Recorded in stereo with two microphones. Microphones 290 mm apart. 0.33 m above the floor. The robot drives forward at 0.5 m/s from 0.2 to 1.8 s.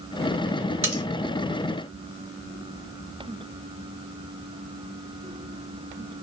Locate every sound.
0.8 s cutlery clinking: 50° right (ahead or behind), 2.5 m